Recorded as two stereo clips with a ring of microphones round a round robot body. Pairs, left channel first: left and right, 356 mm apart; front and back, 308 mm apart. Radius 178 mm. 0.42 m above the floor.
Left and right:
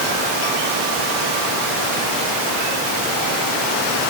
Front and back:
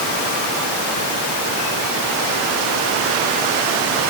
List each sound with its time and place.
Only background noise.